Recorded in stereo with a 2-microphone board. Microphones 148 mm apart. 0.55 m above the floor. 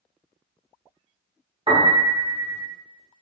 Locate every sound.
1.7 s a piano: 40° right (ahead or behind), 0.8 m